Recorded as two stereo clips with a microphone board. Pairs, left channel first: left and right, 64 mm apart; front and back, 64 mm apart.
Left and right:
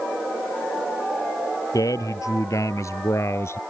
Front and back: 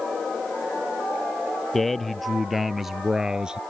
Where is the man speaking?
85° left; by 3.6 s 110° left.